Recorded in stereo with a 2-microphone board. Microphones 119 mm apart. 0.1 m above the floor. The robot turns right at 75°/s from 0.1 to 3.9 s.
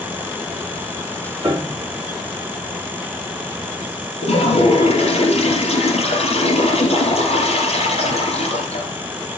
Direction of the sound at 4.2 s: 60° left (ahead or behind).